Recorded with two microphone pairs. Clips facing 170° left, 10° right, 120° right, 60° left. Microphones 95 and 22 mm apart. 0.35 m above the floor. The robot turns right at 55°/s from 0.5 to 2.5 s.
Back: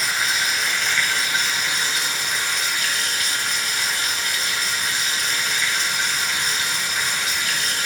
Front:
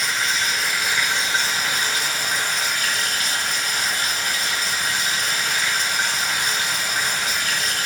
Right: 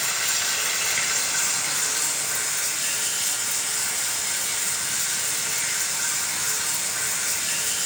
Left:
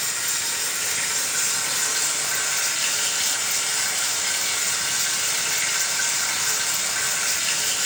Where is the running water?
105° right, 1.0 m; by 7.8 s 5° left, 1.0 m.